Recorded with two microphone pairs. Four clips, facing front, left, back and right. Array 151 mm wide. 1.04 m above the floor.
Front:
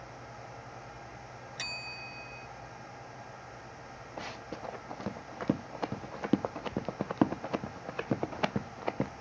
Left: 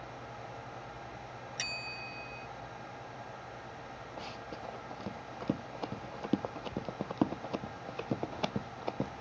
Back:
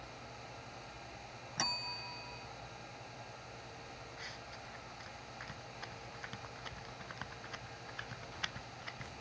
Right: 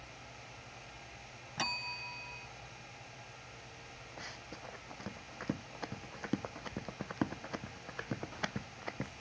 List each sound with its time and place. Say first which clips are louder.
1.6 s a bell: right 2 dB, back 6 dB; 115° right
4.2 s running footsteps: left 5 dB, front 9 dB; 10° left; by 9.1 s 25° left